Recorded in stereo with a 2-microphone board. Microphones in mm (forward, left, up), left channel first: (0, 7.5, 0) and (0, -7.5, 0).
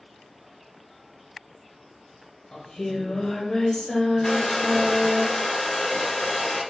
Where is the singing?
75° left (ahead or behind), 0.8 m.